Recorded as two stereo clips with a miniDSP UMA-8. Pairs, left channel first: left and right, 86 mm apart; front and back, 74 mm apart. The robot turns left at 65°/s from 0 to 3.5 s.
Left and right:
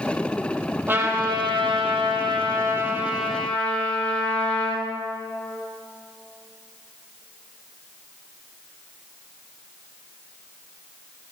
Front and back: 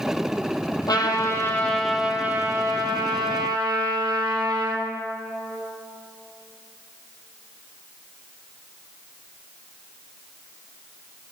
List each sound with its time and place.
0.9 s a trumpet: 25° right, 2.5 m; by 4.9 s 165° left, 2.5 m